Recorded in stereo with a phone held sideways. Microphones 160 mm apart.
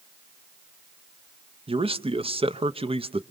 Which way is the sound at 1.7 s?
35° right (ahead or behind).